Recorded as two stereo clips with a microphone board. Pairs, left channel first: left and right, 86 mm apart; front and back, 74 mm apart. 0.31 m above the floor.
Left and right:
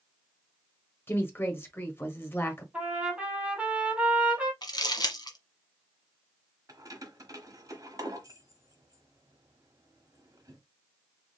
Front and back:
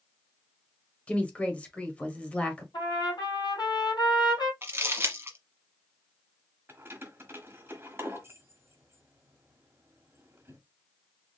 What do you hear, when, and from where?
1.1 s a woman speaking: 55° left, 1.3 m
2.7 s a trumpet: 15° right, 2.5 m
4.6 s crumpling: 120° left, 1.2 m
6.7 s keys jangling: 125° right, 1.1 m